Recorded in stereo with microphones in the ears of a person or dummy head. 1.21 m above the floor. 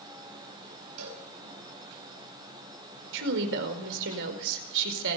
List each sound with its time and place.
1.0 s a cowbell: 80° right, 5.5 m
3.1 s a woman speaking: 65° right (ahead or behind), 4.5 m